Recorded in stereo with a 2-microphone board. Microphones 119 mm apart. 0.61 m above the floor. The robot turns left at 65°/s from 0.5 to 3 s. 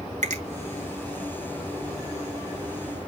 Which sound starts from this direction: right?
A finger snap, at 0.2 s.